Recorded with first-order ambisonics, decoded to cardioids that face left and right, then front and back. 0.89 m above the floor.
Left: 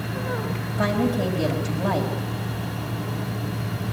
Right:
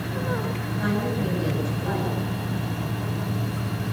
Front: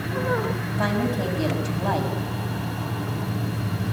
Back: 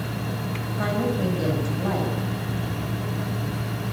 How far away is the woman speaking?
About 4.5 m.